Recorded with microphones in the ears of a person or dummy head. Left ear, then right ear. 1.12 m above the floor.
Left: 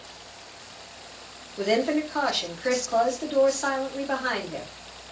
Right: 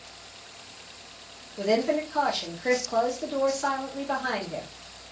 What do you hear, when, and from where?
1.6 s a woman speaking: 10° left (ahead or behind), 0.7 m